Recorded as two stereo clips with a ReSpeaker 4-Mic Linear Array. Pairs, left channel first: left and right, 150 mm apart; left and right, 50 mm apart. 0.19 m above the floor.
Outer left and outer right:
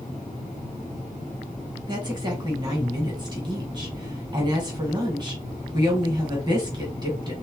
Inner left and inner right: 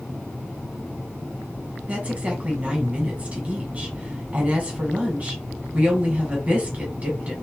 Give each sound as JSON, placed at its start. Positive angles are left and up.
{"t": 1.9, "sound": "a woman speaking", "side_deg": -30, "distance_m": 1.2}